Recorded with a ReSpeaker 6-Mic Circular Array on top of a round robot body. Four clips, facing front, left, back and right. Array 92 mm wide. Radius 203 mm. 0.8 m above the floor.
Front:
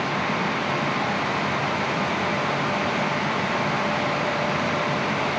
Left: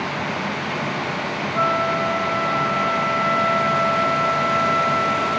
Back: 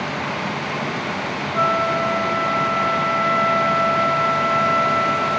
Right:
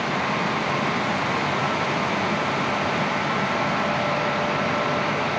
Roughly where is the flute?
Behind left.